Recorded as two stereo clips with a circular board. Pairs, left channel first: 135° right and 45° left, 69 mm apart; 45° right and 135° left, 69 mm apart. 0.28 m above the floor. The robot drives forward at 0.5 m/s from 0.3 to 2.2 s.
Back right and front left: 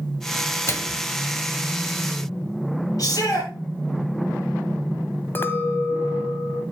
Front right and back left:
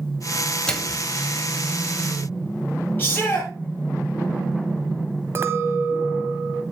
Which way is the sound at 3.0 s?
110° right.